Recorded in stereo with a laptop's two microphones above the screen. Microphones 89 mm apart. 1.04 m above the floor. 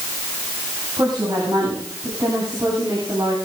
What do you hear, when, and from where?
1.0 s a woman speaking: 50° right (ahead or behind), 10 m; by 3.4 s 40° right (ahead or behind), 9.5 m